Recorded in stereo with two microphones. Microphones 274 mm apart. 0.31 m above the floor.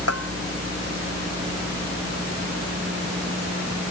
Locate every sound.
0.1 s a bell: 60° left (ahead or behind)